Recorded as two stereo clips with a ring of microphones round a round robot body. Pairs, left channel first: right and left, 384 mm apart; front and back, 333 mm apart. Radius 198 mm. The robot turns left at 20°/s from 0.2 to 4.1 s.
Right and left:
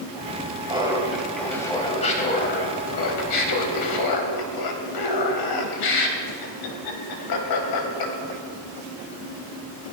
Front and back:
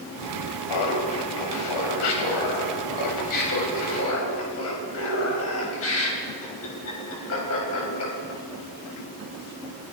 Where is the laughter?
10° left, 3 m; by 8.4 s 55° right, 3 m.